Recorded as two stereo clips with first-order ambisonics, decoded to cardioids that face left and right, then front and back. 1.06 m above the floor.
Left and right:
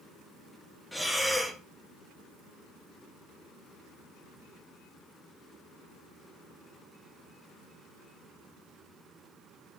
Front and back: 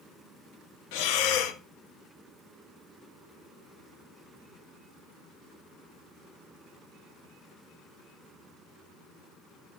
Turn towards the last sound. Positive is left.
turn(degrees=5)